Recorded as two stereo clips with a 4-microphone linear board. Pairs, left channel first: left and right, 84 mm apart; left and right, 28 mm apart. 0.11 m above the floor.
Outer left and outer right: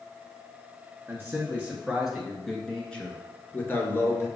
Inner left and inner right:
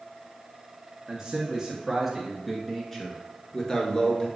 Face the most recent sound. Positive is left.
turn(degrees=35)  # may be behind; listen again after turning